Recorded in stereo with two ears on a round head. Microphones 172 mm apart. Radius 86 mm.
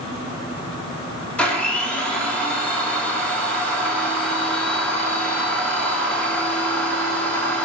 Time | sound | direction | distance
1.4 | a blender | 5° left (ahead or behind) | 1.2 m